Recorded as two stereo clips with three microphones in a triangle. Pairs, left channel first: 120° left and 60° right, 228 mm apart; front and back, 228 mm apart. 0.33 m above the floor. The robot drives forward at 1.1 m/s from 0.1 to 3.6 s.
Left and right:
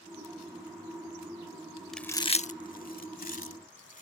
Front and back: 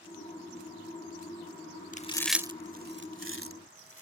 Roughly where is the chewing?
Ahead left.